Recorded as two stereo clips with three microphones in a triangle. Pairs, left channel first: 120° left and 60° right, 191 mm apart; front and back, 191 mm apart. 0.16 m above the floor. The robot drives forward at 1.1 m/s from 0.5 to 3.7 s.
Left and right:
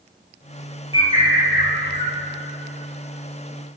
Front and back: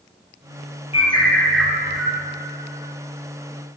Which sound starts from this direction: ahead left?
A bird, at 0.9 s.